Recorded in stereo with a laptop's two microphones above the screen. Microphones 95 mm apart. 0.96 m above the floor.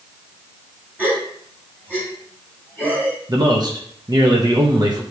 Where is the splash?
No splash in this recording.